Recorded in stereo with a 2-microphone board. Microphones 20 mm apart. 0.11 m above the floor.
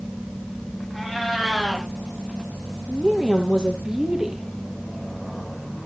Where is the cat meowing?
10° right (ahead or behind), 4.5 m.